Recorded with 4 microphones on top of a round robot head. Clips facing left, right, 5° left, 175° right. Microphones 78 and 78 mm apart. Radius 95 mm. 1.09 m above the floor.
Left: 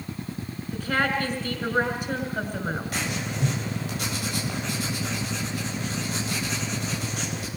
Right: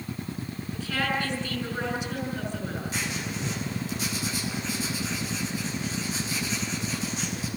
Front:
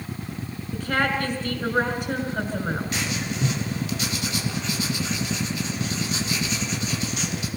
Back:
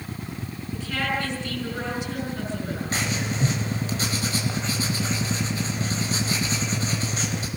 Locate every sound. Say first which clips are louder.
0.7 s a woman speaking: left 4 dB, front 4 dB; 50° left, 5.5 m
2.9 s writing: left 2 dB, back 1 dB; 130° left, 4 m